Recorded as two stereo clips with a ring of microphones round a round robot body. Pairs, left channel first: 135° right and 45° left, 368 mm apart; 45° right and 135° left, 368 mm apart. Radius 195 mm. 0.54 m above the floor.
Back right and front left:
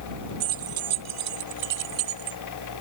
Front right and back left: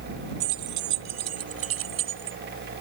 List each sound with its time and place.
0.4 s keys jangling: 100° left; by 2.4 s 75° left